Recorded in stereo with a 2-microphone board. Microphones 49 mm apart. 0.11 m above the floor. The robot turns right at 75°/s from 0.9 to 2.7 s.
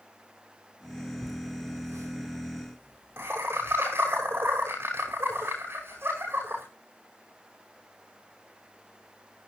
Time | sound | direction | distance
1.2 | laughter | 25° right (ahead or behind) | 6 m